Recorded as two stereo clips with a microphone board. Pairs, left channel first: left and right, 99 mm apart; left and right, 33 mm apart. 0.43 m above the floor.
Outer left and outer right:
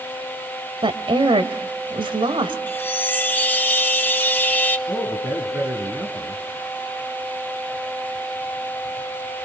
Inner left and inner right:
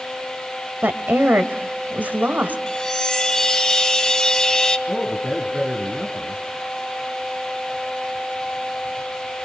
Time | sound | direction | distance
0.8 | a woman speaking | 60° right (ahead or behind) | 2 m
2.7 | a chime | 20° left (ahead or behind) | 1.2 m
4.9 | a man speaking | 20° right (ahead or behind) | 4.5 m